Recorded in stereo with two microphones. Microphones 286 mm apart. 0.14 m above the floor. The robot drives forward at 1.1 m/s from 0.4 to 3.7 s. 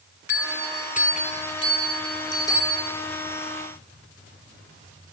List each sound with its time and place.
0.3 s a bell: 45° left (ahead or behind), 0.8 m; by 2.9 s 10° left (ahead or behind), 3 m